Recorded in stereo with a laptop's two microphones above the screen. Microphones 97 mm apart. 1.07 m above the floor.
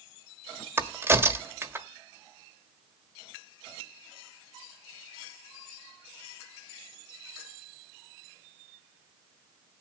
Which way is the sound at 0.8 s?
25° right (ahead or behind).